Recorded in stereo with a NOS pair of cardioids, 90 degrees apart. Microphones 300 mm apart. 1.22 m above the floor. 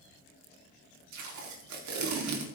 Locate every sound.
1.1 s tape being pulled: 70° right, 3.5 m